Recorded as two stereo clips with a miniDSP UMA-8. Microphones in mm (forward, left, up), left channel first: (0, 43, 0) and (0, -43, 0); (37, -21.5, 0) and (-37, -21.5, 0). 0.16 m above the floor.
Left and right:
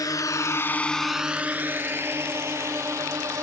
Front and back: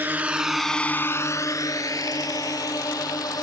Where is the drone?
120° left; by 3.4 s 35° right.